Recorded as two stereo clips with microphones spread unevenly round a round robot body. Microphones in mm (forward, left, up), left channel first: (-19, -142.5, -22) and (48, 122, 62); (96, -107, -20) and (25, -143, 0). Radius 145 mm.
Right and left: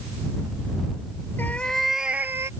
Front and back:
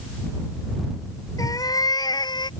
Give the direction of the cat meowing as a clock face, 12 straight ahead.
1 o'clock.